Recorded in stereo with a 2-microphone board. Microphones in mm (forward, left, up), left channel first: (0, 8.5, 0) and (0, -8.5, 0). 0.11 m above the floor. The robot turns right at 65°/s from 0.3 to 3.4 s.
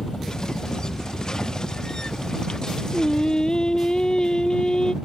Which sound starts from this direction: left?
A helicopter, at 0.0 s.